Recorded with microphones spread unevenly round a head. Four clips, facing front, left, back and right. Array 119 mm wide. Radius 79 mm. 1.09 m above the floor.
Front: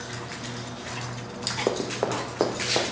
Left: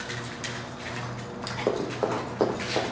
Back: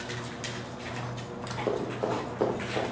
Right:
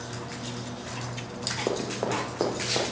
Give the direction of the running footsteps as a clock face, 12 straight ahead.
12 o'clock.